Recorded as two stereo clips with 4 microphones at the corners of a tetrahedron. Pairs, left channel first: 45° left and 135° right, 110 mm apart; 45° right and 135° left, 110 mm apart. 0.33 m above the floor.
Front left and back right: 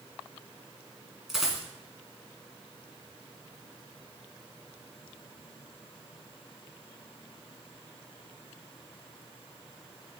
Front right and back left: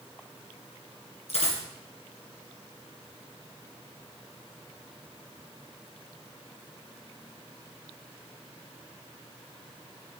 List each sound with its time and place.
1.3 s a dropped coin: 50° right, 2 m